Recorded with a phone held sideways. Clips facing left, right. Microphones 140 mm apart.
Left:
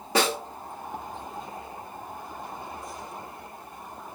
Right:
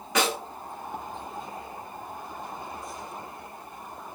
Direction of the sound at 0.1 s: 30° left (ahead or behind).